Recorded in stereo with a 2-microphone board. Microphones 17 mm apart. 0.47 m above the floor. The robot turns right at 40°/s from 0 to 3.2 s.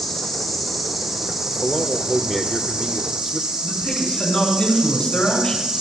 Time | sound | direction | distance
0.0 | an insect | 150° left | 6.5 m
1.4 | a man speaking | 110° left | 1.2 m
3.6 | a man speaking | 70° left (ahead or behind) | 5 m